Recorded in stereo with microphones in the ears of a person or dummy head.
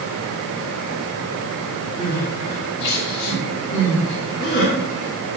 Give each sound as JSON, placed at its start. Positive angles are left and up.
{"t": 2.0, "sound": "crying", "side_deg": 60, "distance_m": 4.5}